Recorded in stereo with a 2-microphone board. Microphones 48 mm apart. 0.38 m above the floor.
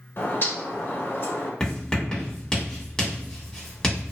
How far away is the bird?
About 1.0 m.